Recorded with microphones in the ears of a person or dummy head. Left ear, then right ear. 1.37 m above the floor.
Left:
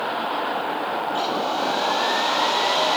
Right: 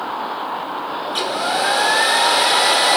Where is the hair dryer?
45° right (ahead or behind), 1.3 m.